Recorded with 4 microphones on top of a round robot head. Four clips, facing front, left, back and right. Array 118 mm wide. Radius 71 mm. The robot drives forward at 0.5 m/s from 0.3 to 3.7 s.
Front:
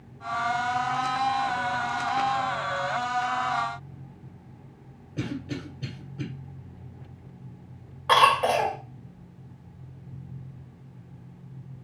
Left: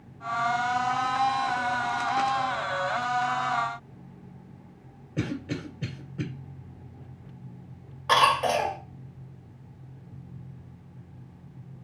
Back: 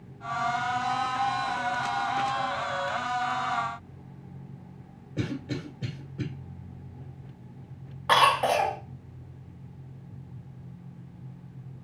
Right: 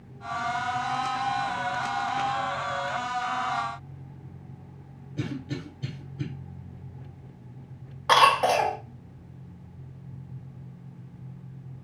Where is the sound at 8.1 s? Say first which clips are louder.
Right 2 dB, front 2 dB; 95° right, 0.9 m.